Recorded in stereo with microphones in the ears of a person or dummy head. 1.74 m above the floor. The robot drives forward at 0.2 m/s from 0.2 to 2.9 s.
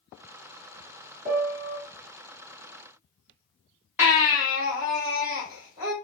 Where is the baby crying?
5° right (ahead or behind), 0.9 m.